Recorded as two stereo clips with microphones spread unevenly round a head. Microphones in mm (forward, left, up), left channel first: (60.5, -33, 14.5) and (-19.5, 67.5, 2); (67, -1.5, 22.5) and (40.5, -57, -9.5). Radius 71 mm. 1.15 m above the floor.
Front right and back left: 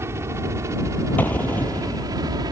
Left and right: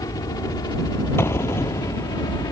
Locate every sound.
0.0 s a helicopter: 60° left; by 2.5 s 75° left
1.2 s an explosion: 25° left